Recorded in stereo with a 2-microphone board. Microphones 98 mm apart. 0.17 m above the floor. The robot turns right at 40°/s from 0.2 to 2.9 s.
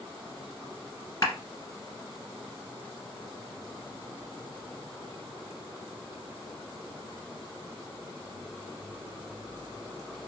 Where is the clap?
40° left (ahead or behind), 1.5 m.